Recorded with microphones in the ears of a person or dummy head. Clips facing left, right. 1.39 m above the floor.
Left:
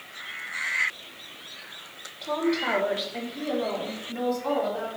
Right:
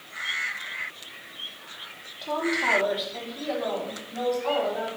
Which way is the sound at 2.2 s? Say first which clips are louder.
Left 2 dB; 5° right (ahead or behind).